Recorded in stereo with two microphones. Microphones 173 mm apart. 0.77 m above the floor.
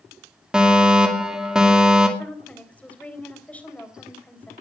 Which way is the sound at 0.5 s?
5° right (ahead or behind).